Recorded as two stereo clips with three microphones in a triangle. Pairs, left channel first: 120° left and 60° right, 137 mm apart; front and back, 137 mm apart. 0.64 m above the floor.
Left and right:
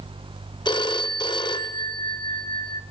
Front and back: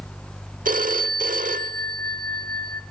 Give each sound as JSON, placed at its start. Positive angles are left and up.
{"t": 0.7, "sound": "a phone ringing", "azimuth_deg": 175, "distance_m": 1.2}